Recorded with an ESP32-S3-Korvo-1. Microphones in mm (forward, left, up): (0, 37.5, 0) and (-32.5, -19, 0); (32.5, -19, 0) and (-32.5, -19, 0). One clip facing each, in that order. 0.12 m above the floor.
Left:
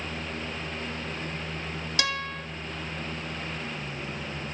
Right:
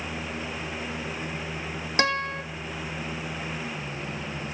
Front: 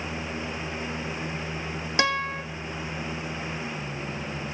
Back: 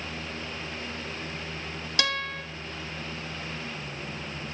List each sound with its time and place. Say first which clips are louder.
2.0 s a guitar: right 6 dB, front 5 dB; 65° right, 0.8 m